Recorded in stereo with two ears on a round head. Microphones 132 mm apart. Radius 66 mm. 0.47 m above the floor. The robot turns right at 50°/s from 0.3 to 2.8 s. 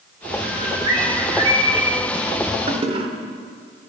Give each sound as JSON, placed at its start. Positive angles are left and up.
{"t": 0.4, "sound": "a bird", "azimuth_deg": -110, "distance_m": 1.5}
{"t": 2.7, "sound": "a toilet flushing", "side_deg": -40, "distance_m": 0.8}